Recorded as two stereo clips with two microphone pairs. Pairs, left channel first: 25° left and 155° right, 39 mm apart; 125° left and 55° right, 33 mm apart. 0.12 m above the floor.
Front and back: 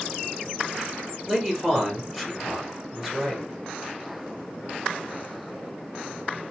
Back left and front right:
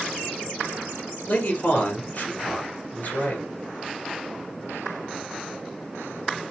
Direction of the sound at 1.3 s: 125° left.